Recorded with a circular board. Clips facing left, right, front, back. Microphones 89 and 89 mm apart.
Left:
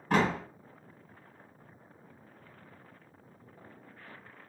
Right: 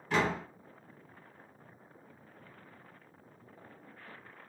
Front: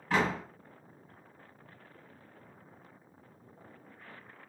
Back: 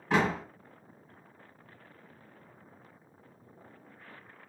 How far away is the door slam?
About 1.7 m.